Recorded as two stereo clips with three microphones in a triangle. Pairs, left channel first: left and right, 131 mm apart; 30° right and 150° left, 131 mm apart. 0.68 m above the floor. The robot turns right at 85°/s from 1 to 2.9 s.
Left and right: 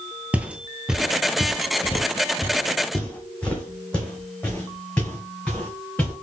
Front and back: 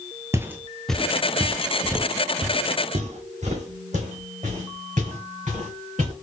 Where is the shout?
No shout in this recording.